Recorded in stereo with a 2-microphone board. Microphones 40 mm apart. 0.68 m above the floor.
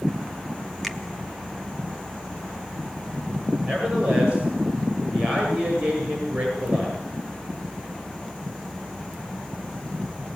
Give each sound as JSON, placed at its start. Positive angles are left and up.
{"t": 0.8, "sound": "a finger snap", "side_deg": 0, "distance_m": 2.5}
{"t": 3.6, "sound": "a man speaking", "side_deg": -25, "distance_m": 10.0}